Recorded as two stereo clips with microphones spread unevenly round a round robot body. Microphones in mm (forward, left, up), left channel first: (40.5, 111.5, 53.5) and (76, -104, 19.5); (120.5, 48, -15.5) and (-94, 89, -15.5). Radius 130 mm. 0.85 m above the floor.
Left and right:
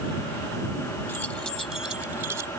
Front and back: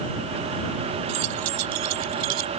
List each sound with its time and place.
1.1 s keys jangling: straight behind; by 2.5 s 160° right